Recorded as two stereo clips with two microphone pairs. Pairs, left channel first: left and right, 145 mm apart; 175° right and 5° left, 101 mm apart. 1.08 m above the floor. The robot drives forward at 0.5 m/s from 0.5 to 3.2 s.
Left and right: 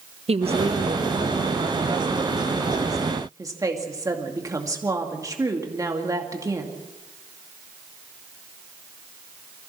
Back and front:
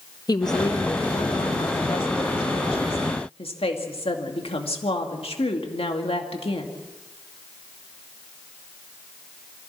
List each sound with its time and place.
0.3 s a woman speaking: 130° right, 1.2 m; by 6.7 s 160° right, 2 m